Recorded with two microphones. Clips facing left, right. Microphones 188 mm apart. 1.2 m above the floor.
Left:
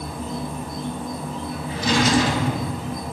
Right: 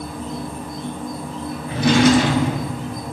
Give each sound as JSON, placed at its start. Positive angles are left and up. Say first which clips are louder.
{"t": 0.0, "sound": "an insect", "louder": "right 1 dB", "side_deg": 0, "distance_m": 0.9}
{"t": 1.7, "sound": "a drawer", "louder": "right 6 dB", "side_deg": -60, "distance_m": 1.0}